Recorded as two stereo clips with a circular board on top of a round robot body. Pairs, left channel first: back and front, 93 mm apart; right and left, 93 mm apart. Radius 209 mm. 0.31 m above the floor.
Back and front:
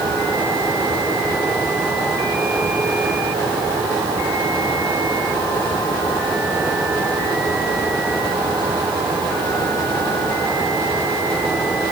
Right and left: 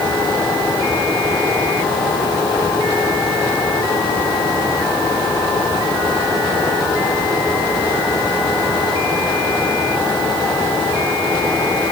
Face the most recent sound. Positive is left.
No sound to turn to.